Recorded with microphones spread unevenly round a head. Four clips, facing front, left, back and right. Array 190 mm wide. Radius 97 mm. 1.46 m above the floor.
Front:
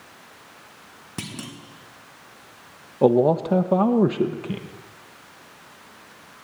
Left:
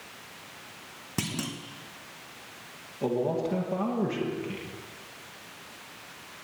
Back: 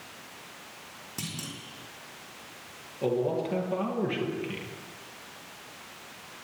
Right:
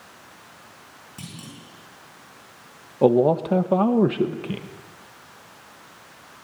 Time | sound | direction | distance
1.2 | a clunk | 65° left | 3 m
3.0 | a man speaking | 45° right | 1.6 m